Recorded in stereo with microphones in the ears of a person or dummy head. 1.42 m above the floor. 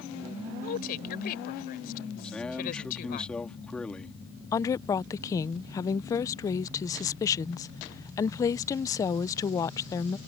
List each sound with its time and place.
0.6 s a woman speaking: 50° left (ahead or behind)
2.2 s a man speaking: 10° left (ahead or behind)
4.5 s a woman speaking: 20° left (ahead or behind)